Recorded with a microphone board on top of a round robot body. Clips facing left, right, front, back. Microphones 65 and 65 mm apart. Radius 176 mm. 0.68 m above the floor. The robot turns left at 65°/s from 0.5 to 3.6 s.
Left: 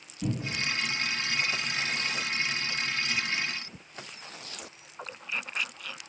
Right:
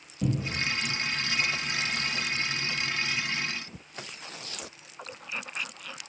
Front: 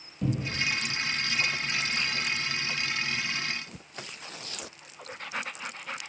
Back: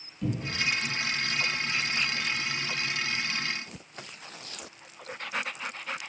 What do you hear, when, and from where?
0.2 s a cupboard door: 60° right, 1.1 m; by 0.6 s 70° right, 1.1 m